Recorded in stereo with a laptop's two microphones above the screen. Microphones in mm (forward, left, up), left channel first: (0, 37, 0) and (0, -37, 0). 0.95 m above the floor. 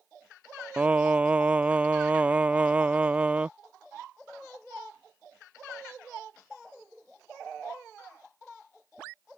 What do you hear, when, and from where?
0.8 s singing: 15° right (ahead or behind)